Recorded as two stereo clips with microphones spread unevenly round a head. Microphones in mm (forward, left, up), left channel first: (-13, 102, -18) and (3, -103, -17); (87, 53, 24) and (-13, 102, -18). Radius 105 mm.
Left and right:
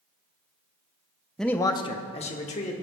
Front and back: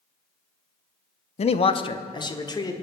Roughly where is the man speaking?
Ahead.